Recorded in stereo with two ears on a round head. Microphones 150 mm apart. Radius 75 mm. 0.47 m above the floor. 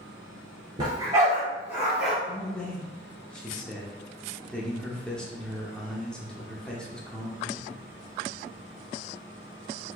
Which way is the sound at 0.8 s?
25° right (ahead or behind).